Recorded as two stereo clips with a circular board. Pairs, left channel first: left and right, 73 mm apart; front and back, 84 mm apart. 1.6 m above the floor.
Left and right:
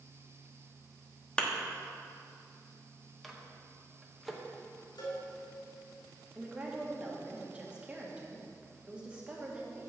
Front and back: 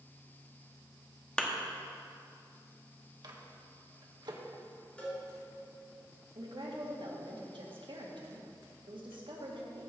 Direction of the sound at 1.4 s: 55° left.